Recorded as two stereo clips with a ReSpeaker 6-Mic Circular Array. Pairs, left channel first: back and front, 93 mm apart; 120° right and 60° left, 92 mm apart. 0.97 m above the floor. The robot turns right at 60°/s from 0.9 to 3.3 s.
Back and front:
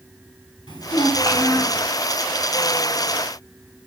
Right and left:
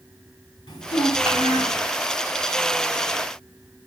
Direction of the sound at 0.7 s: 150° right.